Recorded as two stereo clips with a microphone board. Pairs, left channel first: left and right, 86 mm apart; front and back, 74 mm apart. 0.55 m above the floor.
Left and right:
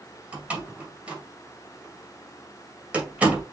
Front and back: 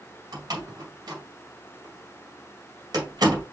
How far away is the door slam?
About 2.0 m.